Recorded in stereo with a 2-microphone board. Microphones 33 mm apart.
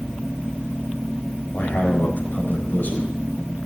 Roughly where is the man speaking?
Left.